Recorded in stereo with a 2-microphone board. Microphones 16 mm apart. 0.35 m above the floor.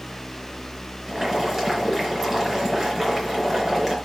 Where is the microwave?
No microwave in this recording.